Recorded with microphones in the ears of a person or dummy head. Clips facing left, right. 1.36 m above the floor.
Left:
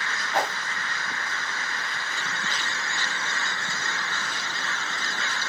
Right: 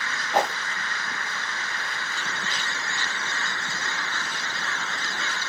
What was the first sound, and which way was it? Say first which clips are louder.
A whoosh: right 3 dB; 35° right (ahead or behind).